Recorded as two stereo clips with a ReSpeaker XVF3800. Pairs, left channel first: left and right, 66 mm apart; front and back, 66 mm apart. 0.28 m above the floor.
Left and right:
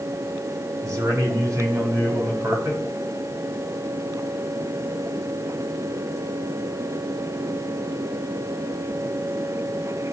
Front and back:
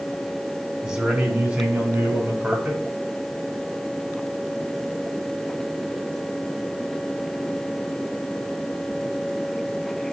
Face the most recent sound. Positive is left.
turn(degrees=-120)